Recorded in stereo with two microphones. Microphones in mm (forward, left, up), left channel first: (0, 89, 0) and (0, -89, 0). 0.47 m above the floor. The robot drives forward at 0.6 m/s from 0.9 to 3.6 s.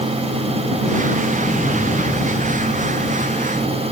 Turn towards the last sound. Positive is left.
turn(degrees=25)  # may be behind; listen again after turning